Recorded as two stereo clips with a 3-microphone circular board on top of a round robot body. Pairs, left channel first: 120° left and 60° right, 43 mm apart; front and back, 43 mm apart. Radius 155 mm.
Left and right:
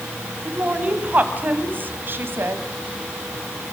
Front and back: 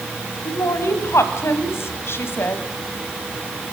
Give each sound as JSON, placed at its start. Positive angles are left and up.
{"t": 0.5, "sound": "a woman speaking", "azimuth_deg": 5, "distance_m": 4.0}